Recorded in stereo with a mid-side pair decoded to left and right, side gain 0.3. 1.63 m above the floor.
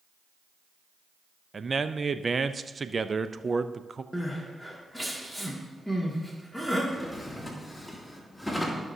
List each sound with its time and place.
1.5 s a man speaking: 45° right, 0.5 m
4.1 s crying: 5° right, 2 m
6.9 s a drawer: 10° left, 2.5 m